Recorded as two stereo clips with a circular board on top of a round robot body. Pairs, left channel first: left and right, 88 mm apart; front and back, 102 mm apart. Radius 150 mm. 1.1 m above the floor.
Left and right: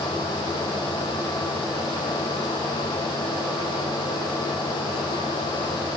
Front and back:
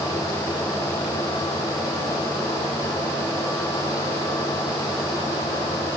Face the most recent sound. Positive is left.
No sound to turn to.